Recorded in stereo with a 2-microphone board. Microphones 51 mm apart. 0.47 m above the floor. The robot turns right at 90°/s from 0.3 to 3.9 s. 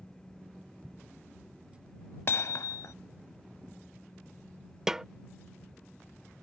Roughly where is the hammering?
Ahead left.